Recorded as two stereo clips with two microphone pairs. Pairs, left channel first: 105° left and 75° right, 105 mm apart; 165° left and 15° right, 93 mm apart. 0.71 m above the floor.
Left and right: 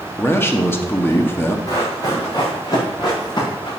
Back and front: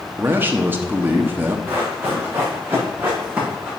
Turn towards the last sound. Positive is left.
turn(degrees=60)